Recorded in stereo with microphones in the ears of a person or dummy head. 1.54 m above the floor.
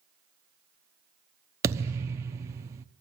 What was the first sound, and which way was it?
A thud, 20° right (ahead or behind).